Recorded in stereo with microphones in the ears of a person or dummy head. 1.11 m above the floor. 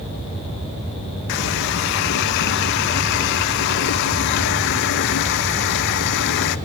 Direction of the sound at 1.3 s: 60° left (ahead or behind).